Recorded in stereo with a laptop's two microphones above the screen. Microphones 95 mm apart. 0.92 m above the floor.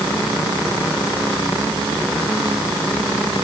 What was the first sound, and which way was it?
Only background noise.